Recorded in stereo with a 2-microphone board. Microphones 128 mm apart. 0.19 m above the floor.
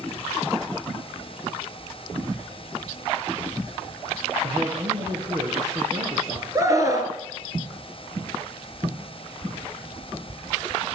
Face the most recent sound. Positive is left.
turn(degrees=-25)  # may be behind; listen again after turning